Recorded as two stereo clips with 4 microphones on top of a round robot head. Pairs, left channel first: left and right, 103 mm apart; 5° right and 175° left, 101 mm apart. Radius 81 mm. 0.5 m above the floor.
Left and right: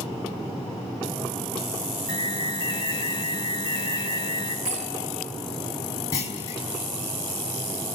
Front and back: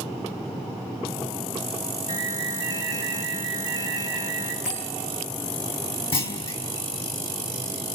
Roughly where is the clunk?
Ahead left.